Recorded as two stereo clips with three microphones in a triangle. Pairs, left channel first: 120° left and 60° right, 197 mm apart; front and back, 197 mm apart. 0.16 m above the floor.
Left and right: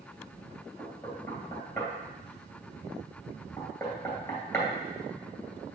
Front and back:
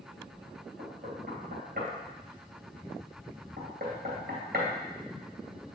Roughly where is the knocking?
Behind.